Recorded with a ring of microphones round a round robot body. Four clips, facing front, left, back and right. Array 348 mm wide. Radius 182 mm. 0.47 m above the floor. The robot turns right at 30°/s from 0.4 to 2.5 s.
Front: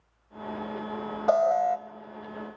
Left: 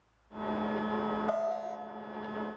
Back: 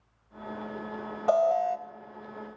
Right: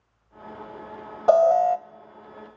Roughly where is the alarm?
Right.